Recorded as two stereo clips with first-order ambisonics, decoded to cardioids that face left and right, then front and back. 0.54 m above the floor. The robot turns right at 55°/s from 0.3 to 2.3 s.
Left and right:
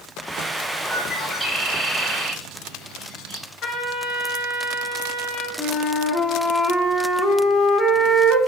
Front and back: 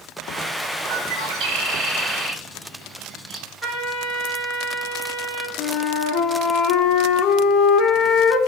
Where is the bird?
150° left, 0.7 m; by 3.5 s 130° right, 0.7 m.